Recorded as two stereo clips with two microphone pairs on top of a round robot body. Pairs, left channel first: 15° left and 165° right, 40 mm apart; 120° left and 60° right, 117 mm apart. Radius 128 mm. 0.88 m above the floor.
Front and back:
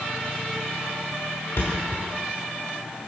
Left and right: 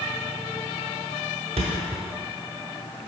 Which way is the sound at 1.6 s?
20° right.